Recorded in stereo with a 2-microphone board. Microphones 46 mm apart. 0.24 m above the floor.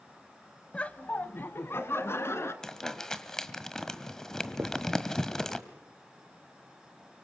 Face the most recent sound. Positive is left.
turn(degrees=-75)  # may be behind; listen again after turning